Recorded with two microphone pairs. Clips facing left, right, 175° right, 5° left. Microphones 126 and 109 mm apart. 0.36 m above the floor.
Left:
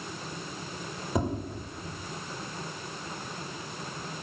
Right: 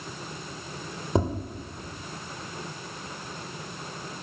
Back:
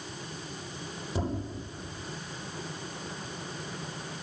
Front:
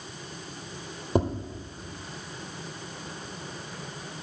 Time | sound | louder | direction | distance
1.1 | tapping | right 4 dB, front 8 dB | 30° right | 3.5 m